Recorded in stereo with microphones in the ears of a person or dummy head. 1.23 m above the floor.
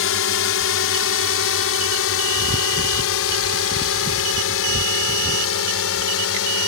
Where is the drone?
65° left (ahead or behind); by 6.7 s 75° left (ahead or behind).